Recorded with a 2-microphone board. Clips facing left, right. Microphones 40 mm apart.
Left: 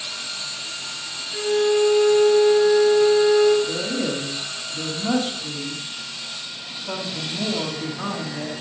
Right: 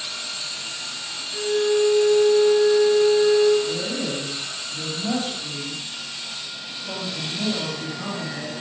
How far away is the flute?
About 1.9 m.